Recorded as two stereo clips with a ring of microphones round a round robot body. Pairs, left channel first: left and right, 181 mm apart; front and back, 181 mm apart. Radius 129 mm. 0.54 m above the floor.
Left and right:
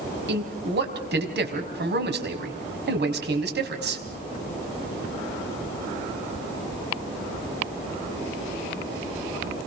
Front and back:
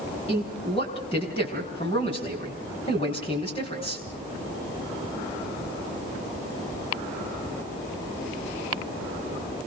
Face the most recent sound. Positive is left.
turn(degrees=-70)